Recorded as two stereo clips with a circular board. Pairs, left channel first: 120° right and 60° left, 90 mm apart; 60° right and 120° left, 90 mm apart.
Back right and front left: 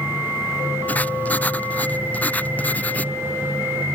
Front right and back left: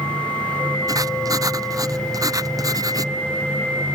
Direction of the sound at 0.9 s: 170° left.